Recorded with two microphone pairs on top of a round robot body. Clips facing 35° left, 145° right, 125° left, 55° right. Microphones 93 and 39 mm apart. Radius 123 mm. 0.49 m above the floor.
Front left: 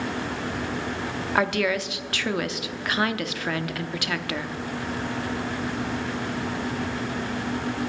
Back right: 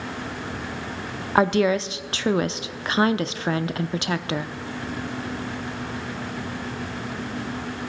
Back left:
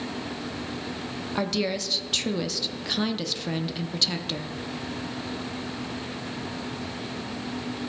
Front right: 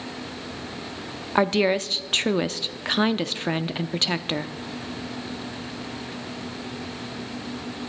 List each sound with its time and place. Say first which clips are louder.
1.4 s a woman speaking: back right 5 dB, front right 7 dB; 80° right, 0.8 m